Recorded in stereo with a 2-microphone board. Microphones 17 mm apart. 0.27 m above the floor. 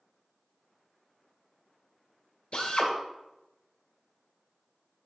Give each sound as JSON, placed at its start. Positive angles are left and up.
{"t": 2.5, "sound": "a drill", "side_deg": 60, "distance_m": 2.5}